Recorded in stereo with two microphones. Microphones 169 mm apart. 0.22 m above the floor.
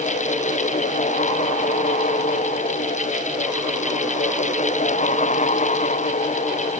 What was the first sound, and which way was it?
Only background noise.